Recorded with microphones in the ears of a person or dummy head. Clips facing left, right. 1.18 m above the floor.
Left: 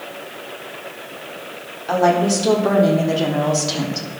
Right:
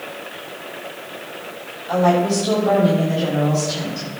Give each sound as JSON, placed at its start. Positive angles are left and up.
{"t": 1.9, "sound": "a woman speaking", "side_deg": 85, "distance_m": 4.0}